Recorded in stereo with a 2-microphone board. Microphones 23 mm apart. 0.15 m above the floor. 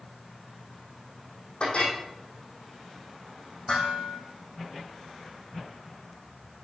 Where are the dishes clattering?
45° left (ahead or behind), 4 m.